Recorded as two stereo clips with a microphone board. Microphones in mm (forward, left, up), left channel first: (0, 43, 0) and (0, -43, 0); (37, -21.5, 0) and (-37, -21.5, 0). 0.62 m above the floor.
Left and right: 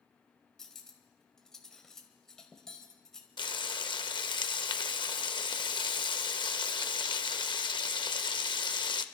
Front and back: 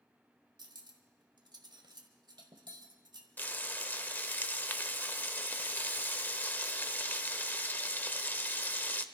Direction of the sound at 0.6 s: 175° left.